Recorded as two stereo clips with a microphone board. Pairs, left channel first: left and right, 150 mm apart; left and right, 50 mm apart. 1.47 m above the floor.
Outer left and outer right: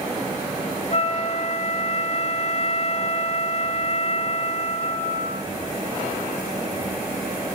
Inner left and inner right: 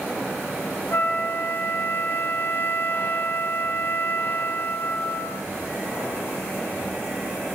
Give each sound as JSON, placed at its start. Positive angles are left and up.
{"t": 0.9, "sound": "a flute", "side_deg": 45, "distance_m": 1.5}